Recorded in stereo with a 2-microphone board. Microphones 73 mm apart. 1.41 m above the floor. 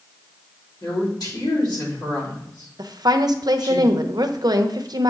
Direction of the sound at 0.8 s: 70° left (ahead or behind).